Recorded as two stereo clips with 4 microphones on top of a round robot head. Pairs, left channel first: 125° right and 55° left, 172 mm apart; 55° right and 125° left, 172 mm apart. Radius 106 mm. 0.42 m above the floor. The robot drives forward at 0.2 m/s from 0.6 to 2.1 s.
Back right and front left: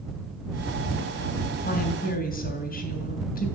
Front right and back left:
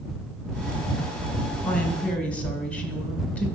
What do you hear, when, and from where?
1.6 s a woman speaking: 135° right, 1.8 m; by 3.5 s 140° right, 1.8 m